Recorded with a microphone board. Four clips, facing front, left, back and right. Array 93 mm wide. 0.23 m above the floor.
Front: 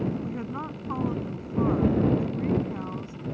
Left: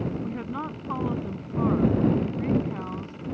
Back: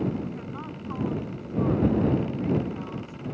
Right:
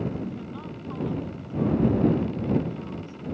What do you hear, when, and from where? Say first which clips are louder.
0.2 s a woman speaking: left 3 dB, front 3 dB; 65° left